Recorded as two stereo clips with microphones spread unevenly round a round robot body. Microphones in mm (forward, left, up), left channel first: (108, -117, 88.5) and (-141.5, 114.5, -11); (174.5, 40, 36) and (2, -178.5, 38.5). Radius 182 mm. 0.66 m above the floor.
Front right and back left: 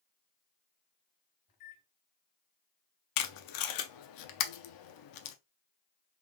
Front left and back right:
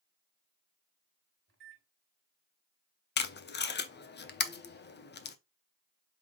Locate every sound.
1.5 s a microwave: 80° right, 1.9 m
3.2 s tape being pulled: 5° right, 0.6 m